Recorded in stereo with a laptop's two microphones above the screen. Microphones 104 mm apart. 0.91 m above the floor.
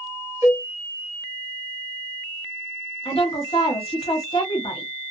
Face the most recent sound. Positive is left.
turn(degrees=55)  # may be behind; listen again after turning